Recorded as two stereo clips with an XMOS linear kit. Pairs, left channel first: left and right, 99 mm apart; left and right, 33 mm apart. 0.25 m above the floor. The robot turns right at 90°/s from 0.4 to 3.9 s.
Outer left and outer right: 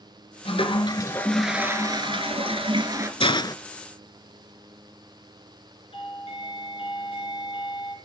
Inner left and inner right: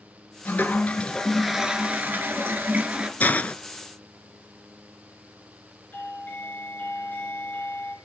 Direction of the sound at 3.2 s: 110° left.